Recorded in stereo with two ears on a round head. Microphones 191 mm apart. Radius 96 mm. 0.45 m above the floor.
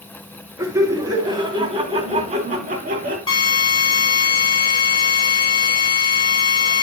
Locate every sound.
0.6 s laughter: 15° right (ahead or behind), 3 m; by 3.2 s 45° right (ahead or behind), 3 m
3.3 s a drill: 25° left (ahead or behind), 4 m